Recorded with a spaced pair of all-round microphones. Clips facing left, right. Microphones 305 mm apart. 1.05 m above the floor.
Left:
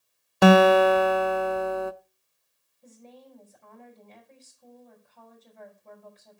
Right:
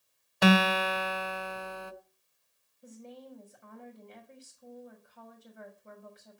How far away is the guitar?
About 0.5 m.